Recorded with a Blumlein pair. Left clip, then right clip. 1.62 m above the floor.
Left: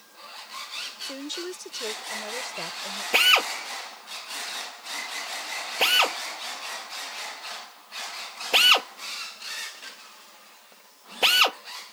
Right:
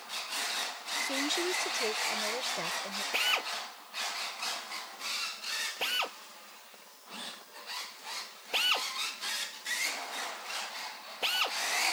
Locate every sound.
1.0 s a woman speaking: 5° right; by 3.0 s 5° left
3.1 s a drill: 30° left